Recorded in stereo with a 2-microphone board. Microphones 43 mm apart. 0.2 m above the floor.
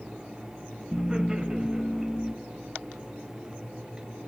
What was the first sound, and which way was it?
Laughter, 15° right (ahead or behind).